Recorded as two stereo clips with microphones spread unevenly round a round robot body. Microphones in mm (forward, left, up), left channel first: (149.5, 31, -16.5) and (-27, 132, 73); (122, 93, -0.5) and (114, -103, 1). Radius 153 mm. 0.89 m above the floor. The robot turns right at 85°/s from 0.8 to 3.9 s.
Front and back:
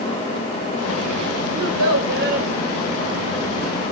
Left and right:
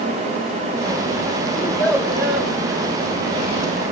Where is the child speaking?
150° left, 2.5 m; by 2.5 s 130° right, 2.5 m.